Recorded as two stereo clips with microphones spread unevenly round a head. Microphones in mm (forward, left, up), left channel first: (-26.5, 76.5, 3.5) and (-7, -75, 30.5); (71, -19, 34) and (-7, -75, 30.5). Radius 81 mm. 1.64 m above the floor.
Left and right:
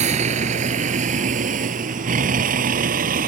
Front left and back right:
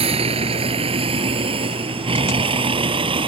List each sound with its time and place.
0.0 s a vehicle: 125° right; by 3.3 s 115° right